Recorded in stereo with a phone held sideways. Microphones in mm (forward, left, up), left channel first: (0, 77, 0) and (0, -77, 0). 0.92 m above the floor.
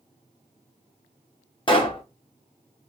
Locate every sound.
1.7 s a pop: 30° left (ahead or behind), 0.6 m